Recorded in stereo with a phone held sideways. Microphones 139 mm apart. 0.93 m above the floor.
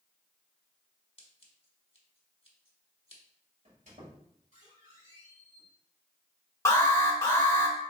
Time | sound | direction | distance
1.2 | scissors | 40° left (ahead or behind) | 1.1 m
3.6 | a squeak | 60° right (ahead or behind) | 1.8 m
6.7 | an alarm | 20° left (ahead or behind) | 0.9 m